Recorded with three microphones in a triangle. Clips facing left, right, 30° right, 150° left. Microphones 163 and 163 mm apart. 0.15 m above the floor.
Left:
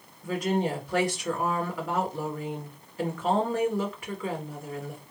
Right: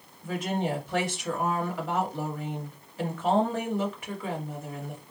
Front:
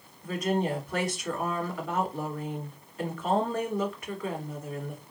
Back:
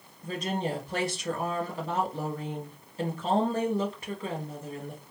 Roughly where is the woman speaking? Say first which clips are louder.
Left 3 dB, front 3 dB; behind.